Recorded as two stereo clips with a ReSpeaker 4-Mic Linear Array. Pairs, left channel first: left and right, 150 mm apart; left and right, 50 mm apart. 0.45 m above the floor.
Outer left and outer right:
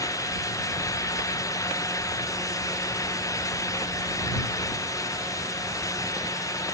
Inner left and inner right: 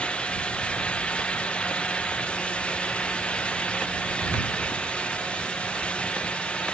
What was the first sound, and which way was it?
Only background noise.